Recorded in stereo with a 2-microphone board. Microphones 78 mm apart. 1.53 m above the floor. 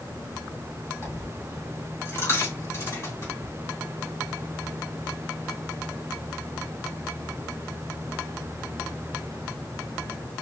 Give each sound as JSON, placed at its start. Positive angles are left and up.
{"t": 1.0, "sound": "a dropped coin", "side_deg": 35, "distance_m": 2.5}